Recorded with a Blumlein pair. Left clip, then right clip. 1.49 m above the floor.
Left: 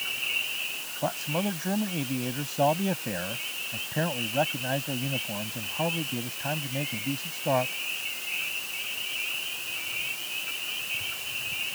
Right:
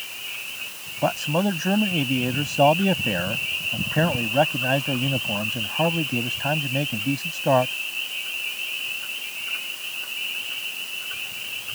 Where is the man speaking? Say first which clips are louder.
Right 7 dB; 70° right.